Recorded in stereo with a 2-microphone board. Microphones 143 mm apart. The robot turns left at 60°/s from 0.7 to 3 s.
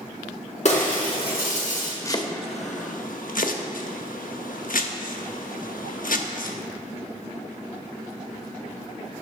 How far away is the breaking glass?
About 2.5 m.